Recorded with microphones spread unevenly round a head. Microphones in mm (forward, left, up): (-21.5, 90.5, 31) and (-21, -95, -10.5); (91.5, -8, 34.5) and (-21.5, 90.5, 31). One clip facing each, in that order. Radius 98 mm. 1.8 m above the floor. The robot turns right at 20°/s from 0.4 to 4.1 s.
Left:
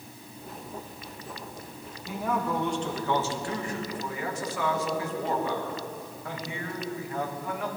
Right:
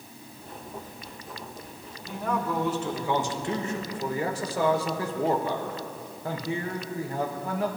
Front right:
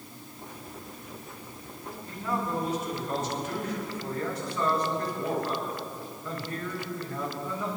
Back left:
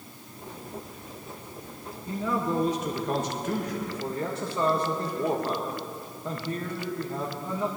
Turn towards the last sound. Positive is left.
turn(degrees=-150)